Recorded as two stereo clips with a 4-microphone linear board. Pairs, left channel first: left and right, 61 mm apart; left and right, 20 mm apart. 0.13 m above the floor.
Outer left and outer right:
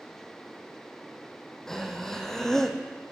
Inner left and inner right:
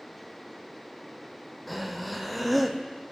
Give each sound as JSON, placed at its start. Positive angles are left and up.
{"t": 1.7, "sound": "breathing", "side_deg": 10, "distance_m": 1.0}